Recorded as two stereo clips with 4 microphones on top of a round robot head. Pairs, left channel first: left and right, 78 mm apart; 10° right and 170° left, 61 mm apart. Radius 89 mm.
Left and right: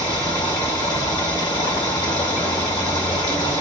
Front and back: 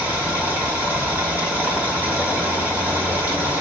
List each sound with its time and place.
0.0 s running water: 115° left, 2.0 m